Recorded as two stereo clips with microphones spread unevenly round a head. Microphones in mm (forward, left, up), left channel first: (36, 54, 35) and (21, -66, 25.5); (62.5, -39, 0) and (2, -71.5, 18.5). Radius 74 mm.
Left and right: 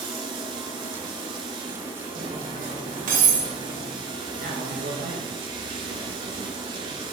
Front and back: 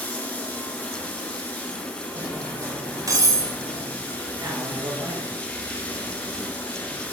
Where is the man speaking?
120° right, 2.5 m.